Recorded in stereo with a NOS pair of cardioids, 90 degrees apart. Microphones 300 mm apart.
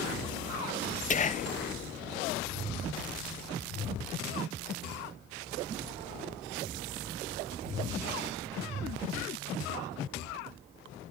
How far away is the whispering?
About 0.7 m.